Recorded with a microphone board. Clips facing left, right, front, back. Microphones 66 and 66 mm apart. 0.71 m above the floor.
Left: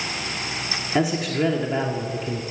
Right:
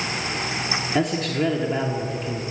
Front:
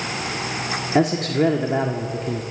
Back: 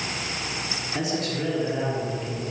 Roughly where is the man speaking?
Ahead.